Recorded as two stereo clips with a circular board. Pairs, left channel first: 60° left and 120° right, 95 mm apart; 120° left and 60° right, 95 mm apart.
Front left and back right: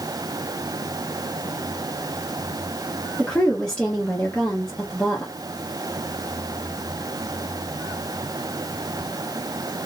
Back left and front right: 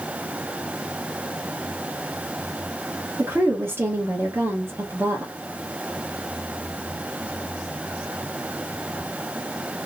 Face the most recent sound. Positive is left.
turn(degrees=-15)